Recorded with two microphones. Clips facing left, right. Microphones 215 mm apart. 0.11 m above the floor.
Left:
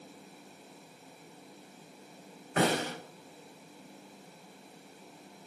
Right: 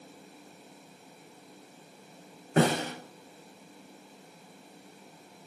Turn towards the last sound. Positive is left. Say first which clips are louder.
# right 3 dB
turn(degrees=-35)  # may be behind; listen again after turning